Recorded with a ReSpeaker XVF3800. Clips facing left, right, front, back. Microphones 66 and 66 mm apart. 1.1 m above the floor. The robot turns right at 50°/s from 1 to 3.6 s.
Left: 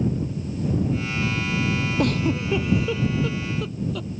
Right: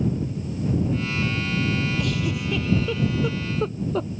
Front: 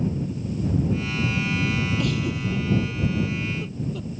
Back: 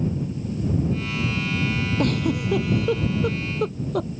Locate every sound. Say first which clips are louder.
2.0 s a giggle: left 4 dB, back 3 dB; 130° left; by 4.1 s 150° right